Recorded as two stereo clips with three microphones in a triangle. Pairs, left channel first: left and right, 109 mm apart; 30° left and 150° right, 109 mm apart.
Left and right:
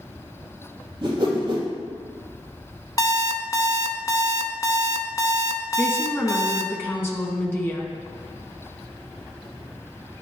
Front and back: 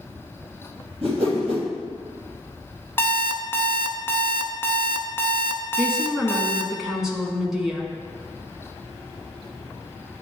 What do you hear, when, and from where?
1.0 s a whoosh: 130° right, 3 m
3.0 s an alarm clock: 80° left, 0.7 m
5.8 s a woman speaking: 130° left, 1.1 m